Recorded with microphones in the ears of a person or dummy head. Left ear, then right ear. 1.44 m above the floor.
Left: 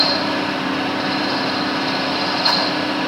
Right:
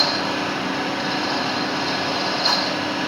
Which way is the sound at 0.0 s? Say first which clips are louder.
Left 3 dB; 5° right (ahead or behind).